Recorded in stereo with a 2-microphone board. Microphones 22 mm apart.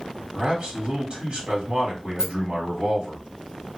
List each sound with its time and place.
0.3 s a man speaking: 40° right (ahead or behind), 1.8 m
2.2 s a rattle: 20° right (ahead or behind), 0.5 m